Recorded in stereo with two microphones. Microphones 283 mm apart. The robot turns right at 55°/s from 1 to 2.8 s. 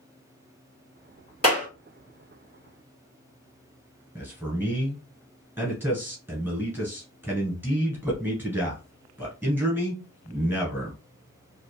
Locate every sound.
1.4 s a clap: 55° left (ahead or behind), 2 m
4.2 s a man speaking: 5° right (ahead or behind), 1.4 m